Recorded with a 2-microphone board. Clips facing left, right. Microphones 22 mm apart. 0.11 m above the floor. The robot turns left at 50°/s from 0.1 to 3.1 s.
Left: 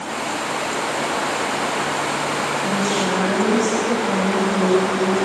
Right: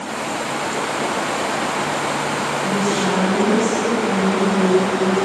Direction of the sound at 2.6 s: 40° left (ahead or behind).